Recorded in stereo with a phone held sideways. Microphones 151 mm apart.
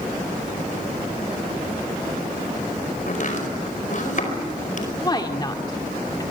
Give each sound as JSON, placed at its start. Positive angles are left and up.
{"t": 3.1, "sound": "chopping", "side_deg": 60, "distance_m": 4.5}
{"t": 5.0, "sound": "a woman speaking", "side_deg": 30, "distance_m": 2.0}